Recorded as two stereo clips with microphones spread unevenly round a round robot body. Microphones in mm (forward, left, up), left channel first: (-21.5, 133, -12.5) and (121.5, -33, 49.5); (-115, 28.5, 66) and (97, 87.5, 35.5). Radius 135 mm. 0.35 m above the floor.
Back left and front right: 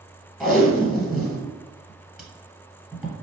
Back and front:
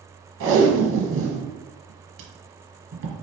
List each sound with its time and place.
0.4 s tape being pulled: 40° left, 1.3 m